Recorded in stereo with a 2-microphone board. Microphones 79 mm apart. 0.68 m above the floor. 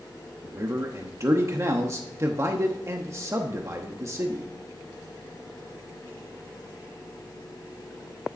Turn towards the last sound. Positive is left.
turn(degrees=-35)  # may be behind; listen again after turning